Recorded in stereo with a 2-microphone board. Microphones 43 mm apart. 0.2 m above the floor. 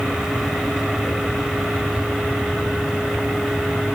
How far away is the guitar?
No guitar in this recording.